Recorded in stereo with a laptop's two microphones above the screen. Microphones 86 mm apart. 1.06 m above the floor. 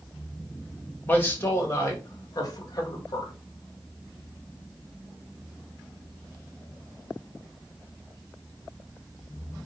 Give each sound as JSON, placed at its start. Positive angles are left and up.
{"t": 1.1, "sound": "a man speaking", "side_deg": 20, "distance_m": 1.8}